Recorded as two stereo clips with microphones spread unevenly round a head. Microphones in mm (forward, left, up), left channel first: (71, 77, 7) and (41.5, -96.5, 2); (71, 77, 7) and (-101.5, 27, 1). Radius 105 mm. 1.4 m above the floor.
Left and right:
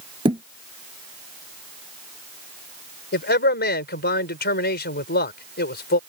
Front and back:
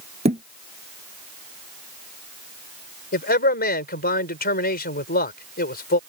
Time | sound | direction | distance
0.2 | a thud | 145° right | ?
3.1 | a man speaking | 50° left | ?